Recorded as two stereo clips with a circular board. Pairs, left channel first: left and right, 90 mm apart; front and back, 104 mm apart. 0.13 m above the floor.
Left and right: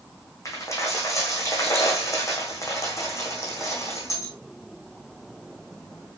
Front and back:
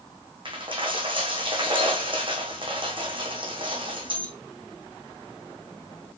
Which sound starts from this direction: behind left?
A dropped coin, at 0.5 s.